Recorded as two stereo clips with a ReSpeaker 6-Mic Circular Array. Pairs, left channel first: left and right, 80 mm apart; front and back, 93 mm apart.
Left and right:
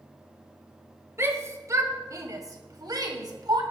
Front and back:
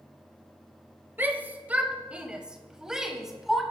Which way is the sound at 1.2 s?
120° right.